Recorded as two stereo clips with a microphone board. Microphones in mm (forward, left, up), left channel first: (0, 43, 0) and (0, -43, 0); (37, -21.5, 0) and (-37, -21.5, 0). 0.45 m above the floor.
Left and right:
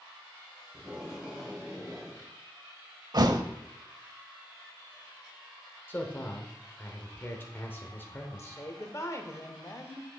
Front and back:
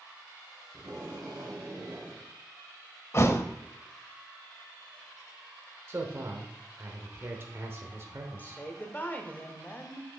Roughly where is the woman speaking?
Ahead left.